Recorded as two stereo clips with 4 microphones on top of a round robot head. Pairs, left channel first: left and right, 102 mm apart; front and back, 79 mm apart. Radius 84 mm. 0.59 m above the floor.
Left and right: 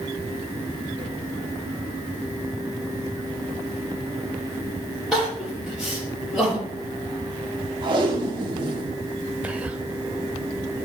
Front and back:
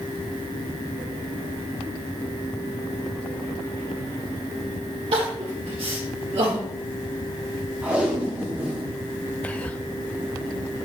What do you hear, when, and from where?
5.1 s crying: 175° right, 5 m
7.8 s tape being pulled: 110° right, 1.8 m
9.4 s whispering: 40° right, 0.7 m